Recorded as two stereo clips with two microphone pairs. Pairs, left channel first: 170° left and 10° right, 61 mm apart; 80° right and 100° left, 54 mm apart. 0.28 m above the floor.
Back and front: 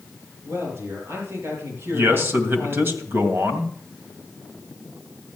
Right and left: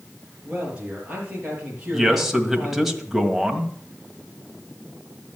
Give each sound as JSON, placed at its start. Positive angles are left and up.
{"t": 0.5, "sound": "a man speaking", "azimuth_deg": 30, "distance_m": 7.0}
{"t": 1.9, "sound": "a man speaking", "azimuth_deg": 15, "distance_m": 2.0}